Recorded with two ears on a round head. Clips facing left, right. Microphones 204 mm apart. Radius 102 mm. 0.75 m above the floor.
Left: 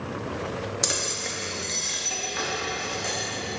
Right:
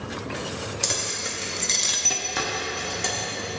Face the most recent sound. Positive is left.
turn(degrees=-55)  # may be behind; listen again after turning